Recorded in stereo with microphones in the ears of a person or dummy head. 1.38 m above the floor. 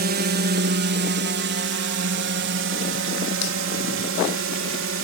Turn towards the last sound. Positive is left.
turn(degrees=-60)  # may be behind; listen again after turning